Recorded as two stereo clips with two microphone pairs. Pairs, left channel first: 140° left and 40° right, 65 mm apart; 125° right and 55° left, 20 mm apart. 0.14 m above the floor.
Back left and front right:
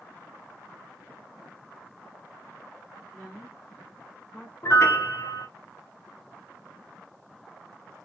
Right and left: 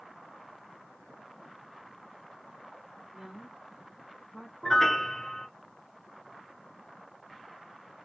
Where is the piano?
170° left, 0.7 m.